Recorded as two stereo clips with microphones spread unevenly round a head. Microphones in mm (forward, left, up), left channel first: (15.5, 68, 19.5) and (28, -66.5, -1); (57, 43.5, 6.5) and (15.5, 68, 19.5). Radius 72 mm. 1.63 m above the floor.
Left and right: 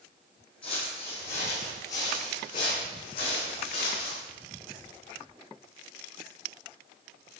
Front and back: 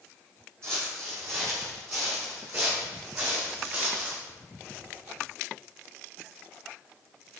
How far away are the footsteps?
About 3 m.